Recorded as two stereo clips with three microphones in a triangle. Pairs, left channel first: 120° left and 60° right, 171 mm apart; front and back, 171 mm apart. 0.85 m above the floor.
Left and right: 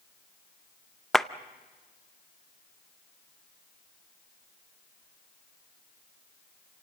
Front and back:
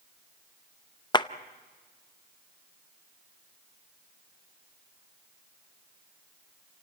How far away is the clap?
About 0.6 m.